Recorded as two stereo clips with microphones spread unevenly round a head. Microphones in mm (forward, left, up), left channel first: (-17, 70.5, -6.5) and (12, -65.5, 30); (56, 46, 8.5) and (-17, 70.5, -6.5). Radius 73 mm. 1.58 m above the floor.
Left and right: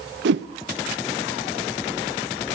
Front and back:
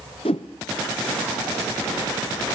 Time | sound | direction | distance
0.2 | a whoosh | 65° right | 0.7 m